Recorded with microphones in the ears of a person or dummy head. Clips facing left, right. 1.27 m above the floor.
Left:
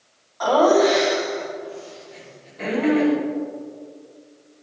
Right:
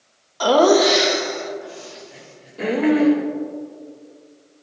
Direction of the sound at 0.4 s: 45° right (ahead or behind).